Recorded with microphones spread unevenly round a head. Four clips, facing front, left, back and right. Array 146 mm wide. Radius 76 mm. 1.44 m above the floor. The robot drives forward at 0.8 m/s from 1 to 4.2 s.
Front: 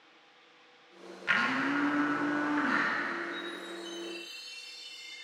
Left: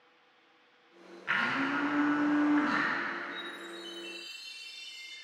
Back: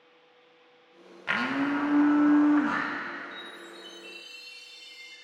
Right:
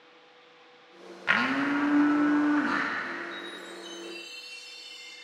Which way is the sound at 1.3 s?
115° right.